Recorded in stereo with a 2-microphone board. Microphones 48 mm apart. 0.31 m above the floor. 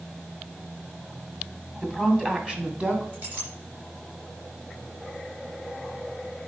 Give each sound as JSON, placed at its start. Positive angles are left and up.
{"t": 1.8, "sound": "a woman speaking", "side_deg": -10, "distance_m": 1.9}
{"t": 3.1, "sound": "a clink", "side_deg": -35, "distance_m": 3.0}